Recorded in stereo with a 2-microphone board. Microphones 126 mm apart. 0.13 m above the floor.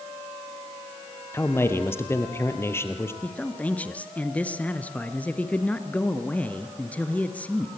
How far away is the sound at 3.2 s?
About 1.9 m.